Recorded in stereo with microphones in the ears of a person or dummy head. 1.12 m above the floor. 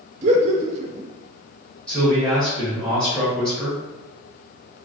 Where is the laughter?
40° right (ahead or behind), 0.5 m.